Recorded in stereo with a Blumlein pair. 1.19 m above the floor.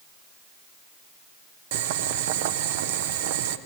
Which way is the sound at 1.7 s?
50° right.